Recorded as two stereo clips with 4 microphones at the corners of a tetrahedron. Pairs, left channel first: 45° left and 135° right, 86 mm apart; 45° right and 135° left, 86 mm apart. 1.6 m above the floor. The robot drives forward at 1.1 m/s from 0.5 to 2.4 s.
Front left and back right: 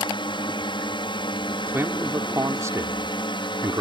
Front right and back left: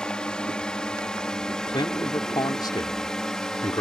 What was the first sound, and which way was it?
A drone, 35° left.